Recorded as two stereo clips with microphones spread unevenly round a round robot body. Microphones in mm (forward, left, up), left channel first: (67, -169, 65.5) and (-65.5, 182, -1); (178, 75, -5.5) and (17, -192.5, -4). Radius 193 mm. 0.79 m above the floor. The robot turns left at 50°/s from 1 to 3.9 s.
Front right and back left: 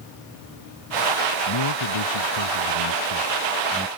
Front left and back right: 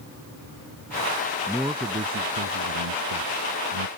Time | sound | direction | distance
1.5 | a man speaking | 30° right | ?